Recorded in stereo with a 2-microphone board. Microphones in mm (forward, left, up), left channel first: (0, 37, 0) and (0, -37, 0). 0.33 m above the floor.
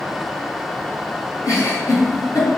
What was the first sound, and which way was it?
A giggle, 55° left (ahead or behind).